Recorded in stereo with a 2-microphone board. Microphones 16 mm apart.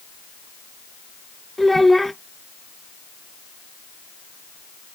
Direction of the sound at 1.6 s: 10° left (ahead or behind).